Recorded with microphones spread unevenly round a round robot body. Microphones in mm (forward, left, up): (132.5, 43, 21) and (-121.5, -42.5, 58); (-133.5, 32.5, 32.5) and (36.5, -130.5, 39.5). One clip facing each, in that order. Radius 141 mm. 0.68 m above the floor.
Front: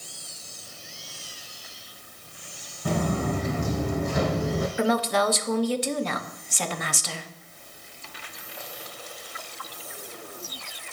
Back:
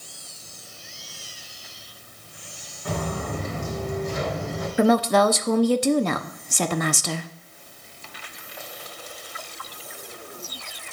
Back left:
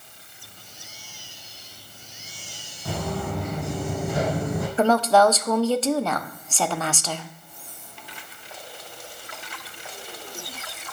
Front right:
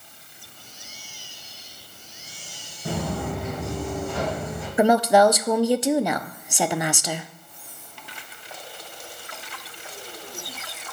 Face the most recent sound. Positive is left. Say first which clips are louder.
# back 7 dB, front right 2 dB
turn(degrees=-120)